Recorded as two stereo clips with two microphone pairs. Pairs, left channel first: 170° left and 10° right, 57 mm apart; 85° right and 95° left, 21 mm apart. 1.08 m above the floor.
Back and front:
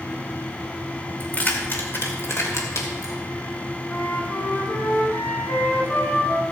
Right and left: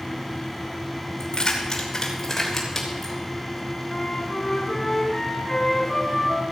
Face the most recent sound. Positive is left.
turn(degrees=-145)